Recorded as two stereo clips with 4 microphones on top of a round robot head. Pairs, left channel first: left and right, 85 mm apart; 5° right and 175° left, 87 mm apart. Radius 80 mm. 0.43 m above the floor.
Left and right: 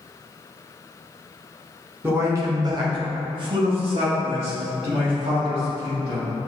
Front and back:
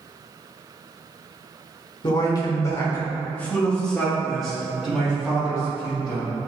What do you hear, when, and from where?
2.0 s a man speaking: 30° right, 1.5 m; by 6.3 s 105° right, 4.5 m